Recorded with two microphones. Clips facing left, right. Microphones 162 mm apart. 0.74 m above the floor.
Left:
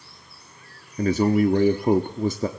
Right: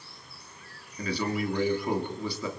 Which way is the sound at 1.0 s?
45° left (ahead or behind).